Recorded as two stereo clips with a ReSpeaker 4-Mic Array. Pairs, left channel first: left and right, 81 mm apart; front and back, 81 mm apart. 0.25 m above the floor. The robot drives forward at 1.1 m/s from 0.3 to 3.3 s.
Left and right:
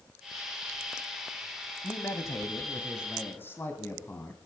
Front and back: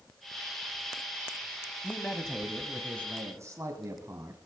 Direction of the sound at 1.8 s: 50° left.